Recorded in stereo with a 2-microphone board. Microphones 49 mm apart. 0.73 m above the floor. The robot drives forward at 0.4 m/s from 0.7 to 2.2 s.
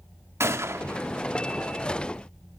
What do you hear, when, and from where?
0.4 s a gunshot: 65° right (ahead or behind), 0.8 m; by 1.1 s 60° right (ahead or behind), 0.9 m